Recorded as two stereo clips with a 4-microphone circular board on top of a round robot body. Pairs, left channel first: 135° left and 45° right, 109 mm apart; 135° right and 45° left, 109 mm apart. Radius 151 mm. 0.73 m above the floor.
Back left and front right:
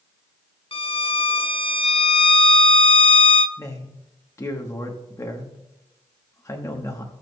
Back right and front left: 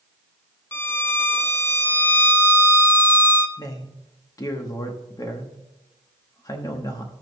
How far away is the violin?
About 0.9 m.